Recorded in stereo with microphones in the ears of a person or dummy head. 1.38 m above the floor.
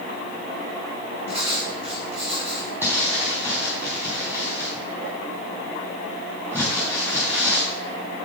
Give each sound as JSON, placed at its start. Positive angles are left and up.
{"t": 1.3, "sound": "writing", "side_deg": -30, "distance_m": 3.0}
{"t": 2.8, "sound": "crumpling", "side_deg": -10, "distance_m": 4.0}